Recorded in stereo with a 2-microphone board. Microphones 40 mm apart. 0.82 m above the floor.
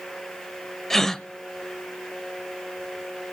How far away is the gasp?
About 0.7 m.